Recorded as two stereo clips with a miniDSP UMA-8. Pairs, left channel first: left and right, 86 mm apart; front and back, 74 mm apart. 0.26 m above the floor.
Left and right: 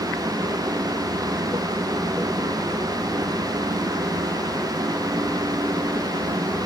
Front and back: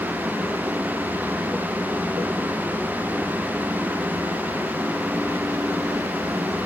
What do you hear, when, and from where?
Only background noise.